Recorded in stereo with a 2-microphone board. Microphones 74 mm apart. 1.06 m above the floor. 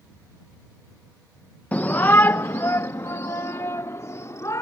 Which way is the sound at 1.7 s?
20° left (ahead or behind).